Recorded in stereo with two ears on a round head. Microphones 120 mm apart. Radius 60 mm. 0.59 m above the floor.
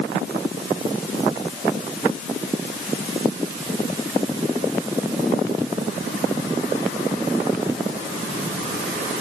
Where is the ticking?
I don't hear ticking.